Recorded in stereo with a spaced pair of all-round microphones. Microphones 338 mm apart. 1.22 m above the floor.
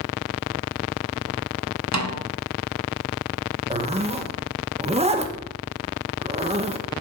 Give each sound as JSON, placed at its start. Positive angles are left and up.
{"t": 1.9, "sound": "a snare drum", "side_deg": -55, "distance_m": 1.0}
{"t": 3.7, "sound": "a zipper", "side_deg": -20, "distance_m": 0.8}